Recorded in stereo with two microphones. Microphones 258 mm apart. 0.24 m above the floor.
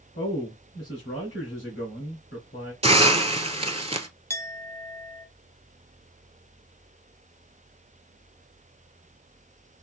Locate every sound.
0.1 s a man speaking: 60° left (ahead or behind), 2.5 m
2.8 s a hiss: 25° right (ahead or behind), 0.6 m
4.3 s a clink: 10° left (ahead or behind), 0.6 m